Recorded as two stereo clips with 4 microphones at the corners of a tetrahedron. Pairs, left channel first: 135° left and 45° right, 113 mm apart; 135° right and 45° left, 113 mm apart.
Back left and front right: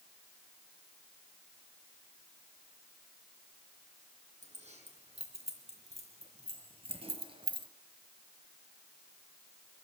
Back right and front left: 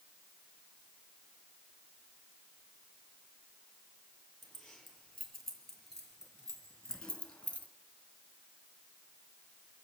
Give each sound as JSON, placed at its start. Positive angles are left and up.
{"t": 4.4, "sound": "keys jangling", "azimuth_deg": -45, "distance_m": 4.0}